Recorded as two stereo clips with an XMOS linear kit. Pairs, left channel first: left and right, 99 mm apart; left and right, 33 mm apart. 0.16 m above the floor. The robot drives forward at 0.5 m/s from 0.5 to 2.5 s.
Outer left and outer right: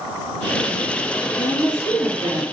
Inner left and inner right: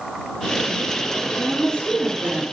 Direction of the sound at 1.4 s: 40° left (ahead or behind).